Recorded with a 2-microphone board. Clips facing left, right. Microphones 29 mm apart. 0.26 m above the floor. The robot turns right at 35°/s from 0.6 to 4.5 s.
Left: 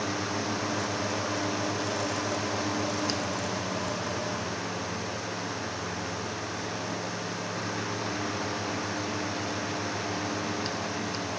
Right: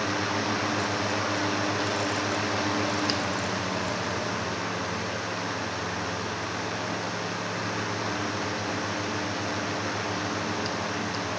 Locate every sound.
Only background noise.